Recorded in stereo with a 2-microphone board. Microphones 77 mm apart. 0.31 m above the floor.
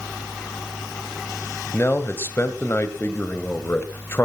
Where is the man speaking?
30° left (ahead or behind), 1.6 m.